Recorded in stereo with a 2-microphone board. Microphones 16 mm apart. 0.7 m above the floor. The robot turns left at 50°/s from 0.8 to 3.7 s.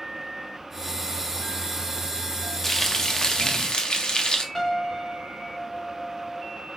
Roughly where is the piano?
Left.